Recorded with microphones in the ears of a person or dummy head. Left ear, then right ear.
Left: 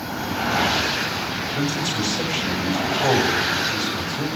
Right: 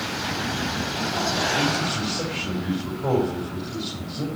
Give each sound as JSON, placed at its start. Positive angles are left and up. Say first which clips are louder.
{"t": 1.6, "sound": "a man speaking", "louder": "even", "side_deg": 45, "distance_m": 4.5}